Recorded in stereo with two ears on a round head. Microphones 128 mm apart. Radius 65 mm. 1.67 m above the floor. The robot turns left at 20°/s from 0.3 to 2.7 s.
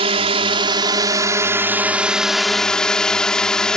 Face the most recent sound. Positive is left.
turn(degrees=175)